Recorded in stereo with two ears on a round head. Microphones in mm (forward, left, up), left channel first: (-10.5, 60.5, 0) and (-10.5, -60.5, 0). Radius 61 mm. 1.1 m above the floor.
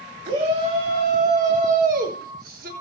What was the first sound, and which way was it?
A shout, 45° right (ahead or behind).